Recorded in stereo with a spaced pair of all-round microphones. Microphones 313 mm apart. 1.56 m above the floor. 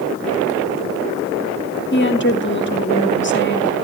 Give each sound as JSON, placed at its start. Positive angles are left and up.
{"t": 1.9, "sound": "a woman speaking", "side_deg": 35, "distance_m": 1.9}